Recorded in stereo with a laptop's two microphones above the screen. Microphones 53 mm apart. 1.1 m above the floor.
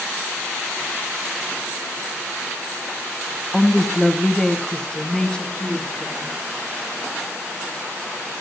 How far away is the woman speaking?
About 0.8 m.